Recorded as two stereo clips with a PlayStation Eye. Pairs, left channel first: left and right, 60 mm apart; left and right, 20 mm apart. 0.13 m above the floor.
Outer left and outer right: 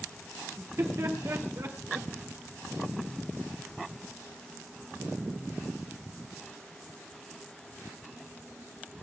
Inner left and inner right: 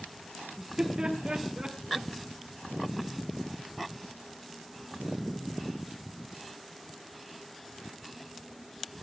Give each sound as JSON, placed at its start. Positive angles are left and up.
{"t": 0.6, "sound": "laughter", "side_deg": -50, "distance_m": 3.5}